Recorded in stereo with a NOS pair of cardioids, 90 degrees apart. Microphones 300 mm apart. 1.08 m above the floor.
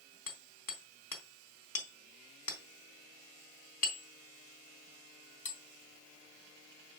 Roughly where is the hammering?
Ahead left.